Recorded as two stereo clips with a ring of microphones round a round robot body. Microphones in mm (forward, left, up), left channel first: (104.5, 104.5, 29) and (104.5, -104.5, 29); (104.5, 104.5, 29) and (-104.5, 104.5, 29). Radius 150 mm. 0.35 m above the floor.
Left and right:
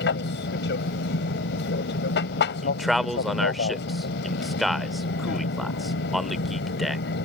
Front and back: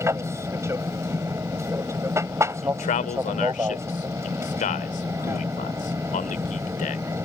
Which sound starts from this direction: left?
An aircraft, at 0.0 s.